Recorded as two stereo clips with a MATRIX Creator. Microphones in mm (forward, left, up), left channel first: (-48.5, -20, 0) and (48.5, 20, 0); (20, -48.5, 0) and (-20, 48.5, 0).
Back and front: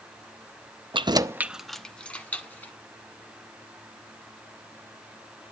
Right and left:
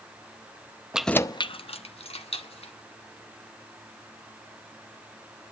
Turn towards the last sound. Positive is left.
turn(degrees=-85)